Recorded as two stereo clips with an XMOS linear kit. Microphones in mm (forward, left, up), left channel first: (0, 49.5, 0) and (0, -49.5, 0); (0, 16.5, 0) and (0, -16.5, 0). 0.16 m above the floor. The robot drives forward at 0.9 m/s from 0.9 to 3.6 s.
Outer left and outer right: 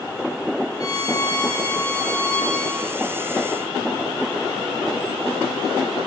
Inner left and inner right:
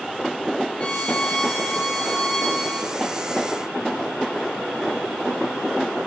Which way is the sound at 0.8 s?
40° left (ahead or behind).